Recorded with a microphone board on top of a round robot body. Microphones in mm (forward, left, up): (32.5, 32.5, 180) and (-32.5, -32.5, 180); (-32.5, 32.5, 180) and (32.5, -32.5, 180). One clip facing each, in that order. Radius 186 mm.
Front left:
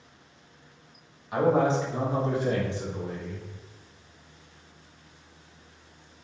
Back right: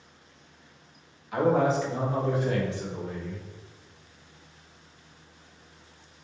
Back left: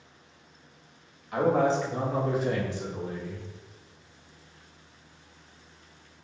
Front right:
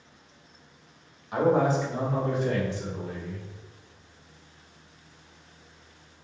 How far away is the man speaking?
About 1.4 m.